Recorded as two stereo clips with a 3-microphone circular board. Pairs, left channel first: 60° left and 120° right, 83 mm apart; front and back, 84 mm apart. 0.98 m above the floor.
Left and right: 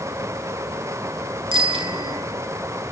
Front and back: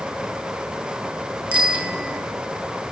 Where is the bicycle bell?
105° right, 9.5 m.